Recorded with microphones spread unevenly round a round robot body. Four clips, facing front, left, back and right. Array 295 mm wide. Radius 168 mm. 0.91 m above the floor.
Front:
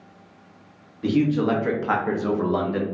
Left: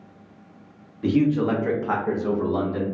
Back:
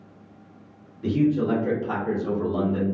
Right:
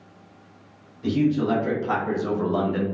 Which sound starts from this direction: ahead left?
A man speaking, at 1.0 s.